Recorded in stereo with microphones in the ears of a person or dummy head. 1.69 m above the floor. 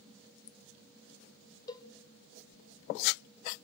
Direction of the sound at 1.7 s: 25° left (ahead or behind).